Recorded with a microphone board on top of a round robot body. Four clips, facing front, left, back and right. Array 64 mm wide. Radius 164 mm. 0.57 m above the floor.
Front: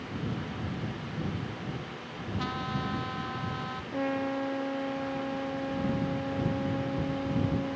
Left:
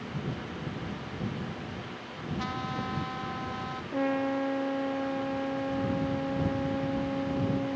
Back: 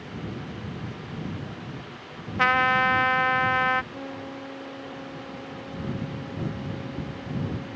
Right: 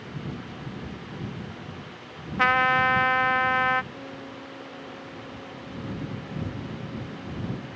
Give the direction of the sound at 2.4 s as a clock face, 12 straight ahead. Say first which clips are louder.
Right 16 dB, back 15 dB; 4 o'clock.